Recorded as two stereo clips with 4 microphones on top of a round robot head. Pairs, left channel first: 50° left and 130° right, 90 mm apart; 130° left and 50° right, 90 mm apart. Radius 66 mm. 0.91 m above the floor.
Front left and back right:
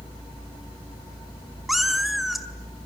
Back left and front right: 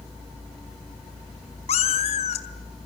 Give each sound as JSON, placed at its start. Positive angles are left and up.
{"t": 1.7, "sound": "a cat meowing", "azimuth_deg": 145, "distance_m": 2.0}